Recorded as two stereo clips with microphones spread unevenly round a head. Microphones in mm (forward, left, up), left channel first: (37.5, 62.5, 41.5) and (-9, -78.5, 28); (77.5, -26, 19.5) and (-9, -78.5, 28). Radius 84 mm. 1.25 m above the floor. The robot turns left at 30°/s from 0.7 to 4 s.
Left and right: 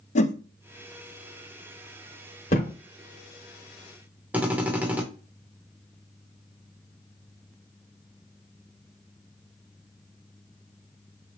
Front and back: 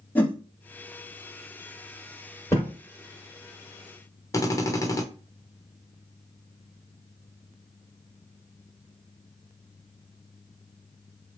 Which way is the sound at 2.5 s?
110° left.